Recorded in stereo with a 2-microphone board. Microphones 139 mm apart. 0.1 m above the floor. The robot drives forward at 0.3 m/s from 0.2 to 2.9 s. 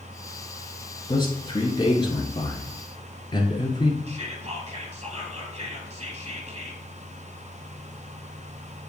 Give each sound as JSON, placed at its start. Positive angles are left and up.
{"t": 1.1, "sound": "a man speaking", "side_deg": 35, "distance_m": 1.4}
{"t": 4.1, "sound": "whispering", "side_deg": -45, "distance_m": 2.5}